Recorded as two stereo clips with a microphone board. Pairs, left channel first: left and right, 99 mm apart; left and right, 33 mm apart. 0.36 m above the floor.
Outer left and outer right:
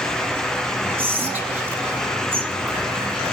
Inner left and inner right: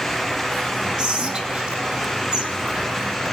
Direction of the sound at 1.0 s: 20° right (ahead or behind).